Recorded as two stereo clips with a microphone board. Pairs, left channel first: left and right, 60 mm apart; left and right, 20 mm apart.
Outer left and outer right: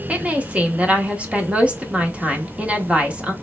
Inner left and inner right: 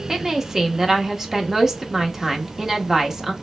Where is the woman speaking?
20° right (ahead or behind), 0.9 m.